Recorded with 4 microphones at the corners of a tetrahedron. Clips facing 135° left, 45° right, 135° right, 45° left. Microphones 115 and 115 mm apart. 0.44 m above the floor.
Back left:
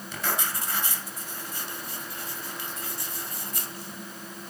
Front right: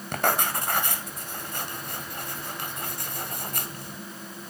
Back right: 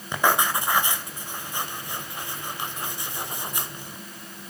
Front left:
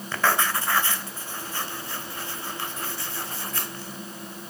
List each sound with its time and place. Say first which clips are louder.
0.1 s writing: front right 7 dB, back right 2 dB; 65° right, 1.9 m